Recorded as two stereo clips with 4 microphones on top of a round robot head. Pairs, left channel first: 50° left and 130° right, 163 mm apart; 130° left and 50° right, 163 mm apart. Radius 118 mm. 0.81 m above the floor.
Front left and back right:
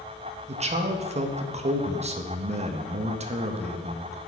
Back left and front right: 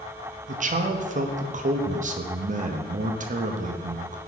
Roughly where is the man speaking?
Right.